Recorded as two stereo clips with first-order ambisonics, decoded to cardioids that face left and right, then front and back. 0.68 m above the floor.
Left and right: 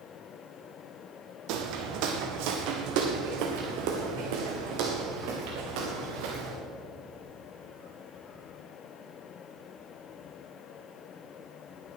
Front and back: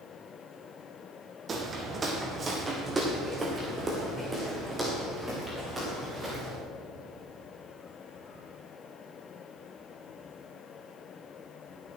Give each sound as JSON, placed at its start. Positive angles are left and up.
{"t": 1.5, "sound": "footsteps", "azimuth_deg": -115, "distance_m": 1.9}